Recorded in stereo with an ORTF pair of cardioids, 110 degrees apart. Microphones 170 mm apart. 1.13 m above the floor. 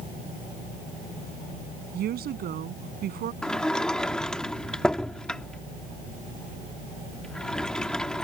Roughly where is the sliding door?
Ahead.